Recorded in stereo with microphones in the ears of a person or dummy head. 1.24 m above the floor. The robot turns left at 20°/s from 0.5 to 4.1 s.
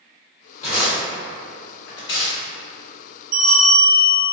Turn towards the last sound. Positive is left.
turn(degrees=-35)  # may be behind; listen again after turning